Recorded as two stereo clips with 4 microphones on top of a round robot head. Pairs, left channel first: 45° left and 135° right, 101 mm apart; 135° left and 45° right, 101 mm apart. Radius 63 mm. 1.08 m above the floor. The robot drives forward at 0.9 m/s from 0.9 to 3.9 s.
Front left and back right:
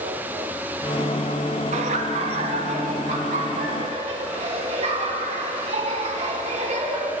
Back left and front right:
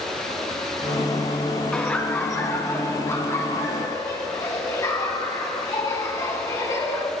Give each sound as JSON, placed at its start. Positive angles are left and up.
{"t": 1.7, "sound": "laughter", "azimuth_deg": -145, "distance_m": 1.6}